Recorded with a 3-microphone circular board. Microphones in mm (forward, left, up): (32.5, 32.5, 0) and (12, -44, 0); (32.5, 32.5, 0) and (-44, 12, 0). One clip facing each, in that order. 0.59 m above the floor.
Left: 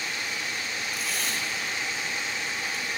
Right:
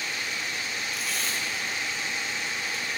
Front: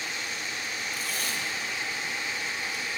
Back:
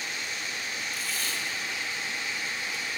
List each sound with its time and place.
0.9 s tape being pulled: 15° right, 2.5 m